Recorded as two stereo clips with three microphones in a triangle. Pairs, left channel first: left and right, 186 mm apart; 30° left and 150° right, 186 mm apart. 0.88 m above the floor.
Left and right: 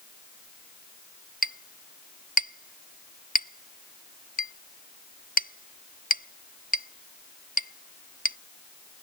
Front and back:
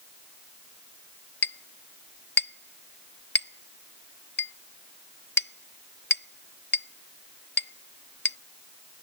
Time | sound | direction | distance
1.4 | a clink | 50° left | ?